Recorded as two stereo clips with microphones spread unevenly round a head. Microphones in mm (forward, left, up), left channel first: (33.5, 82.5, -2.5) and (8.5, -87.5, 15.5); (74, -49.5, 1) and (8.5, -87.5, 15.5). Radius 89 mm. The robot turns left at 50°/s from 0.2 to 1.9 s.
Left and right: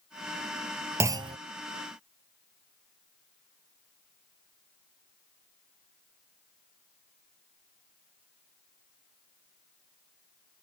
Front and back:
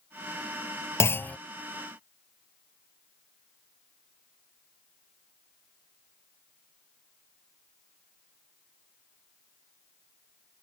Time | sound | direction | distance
1.0 | a clunk | 20° right | ?